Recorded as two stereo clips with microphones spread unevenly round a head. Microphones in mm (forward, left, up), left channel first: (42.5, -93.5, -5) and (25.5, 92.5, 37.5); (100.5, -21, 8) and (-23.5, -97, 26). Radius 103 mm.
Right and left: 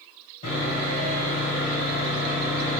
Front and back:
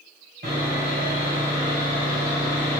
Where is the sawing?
145° right, 1.3 m.